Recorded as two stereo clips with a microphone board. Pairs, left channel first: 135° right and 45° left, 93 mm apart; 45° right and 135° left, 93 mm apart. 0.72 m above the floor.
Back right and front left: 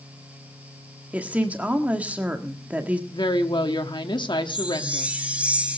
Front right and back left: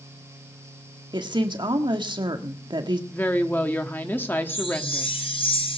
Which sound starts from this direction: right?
A woman speaking, at 3.1 s.